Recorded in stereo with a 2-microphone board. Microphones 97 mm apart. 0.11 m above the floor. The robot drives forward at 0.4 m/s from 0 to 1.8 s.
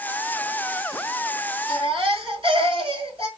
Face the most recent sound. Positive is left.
turn(degrees=-65)  # may be behind; listen again after turning